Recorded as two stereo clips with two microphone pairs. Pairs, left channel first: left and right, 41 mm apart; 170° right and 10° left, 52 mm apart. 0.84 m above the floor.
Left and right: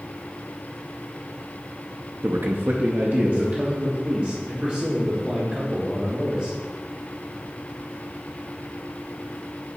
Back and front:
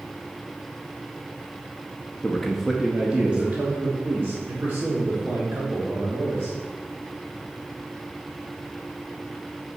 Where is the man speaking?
95° right, 0.7 m; by 6.6 s 25° right, 2.5 m.